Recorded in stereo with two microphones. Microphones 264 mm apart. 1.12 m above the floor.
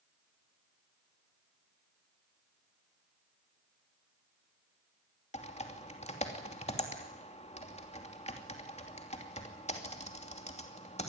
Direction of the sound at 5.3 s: 25° left (ahead or behind).